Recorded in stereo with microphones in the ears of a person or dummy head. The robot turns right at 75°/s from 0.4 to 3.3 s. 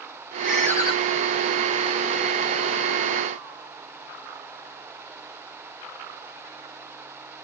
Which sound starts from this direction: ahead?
A ringtone, at 0.4 s.